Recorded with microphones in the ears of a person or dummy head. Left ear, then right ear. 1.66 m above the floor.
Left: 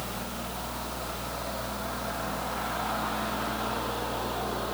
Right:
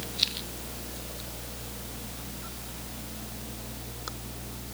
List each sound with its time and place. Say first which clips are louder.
0.0 s a fan: right 5 dB; 5° right (ahead or behind), 1.5 m